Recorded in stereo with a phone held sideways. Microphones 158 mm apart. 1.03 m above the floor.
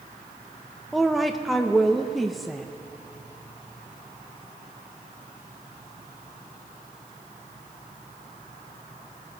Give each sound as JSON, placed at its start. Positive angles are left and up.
{"t": 0.9, "sound": "a woman speaking", "side_deg": 0, "distance_m": 0.9}